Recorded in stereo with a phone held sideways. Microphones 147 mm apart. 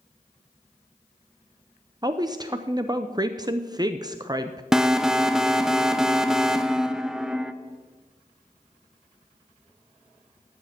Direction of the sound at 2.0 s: 25° right (ahead or behind).